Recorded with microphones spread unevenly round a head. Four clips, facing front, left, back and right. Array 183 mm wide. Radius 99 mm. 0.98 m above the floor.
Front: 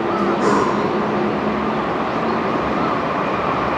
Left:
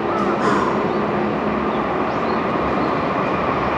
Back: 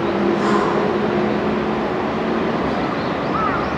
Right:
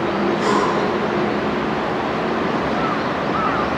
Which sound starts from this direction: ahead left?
Breathing, at 0.4 s.